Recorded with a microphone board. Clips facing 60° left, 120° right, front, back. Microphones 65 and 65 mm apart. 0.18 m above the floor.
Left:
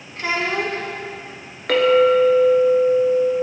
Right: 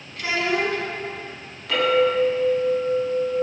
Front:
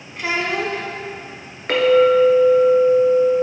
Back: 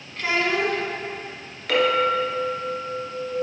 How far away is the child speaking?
About 1.0 m.